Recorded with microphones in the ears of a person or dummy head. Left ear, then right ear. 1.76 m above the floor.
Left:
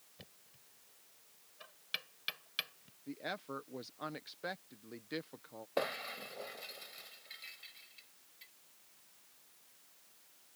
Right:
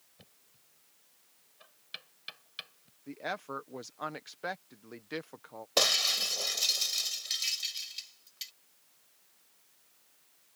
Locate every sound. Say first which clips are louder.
0.2 s knocking: left 4 dB; 15° left (ahead or behind)
3.1 s a woman speaking: right 5 dB; 30° right (ahead or behind)
5.8 s breaking glass: right 12 dB; 80° right